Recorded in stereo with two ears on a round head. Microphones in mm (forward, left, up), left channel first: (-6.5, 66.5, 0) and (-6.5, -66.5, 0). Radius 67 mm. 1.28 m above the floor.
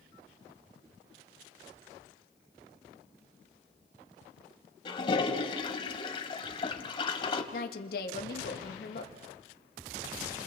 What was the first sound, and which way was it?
A toilet flushing, 35° left (ahead or behind).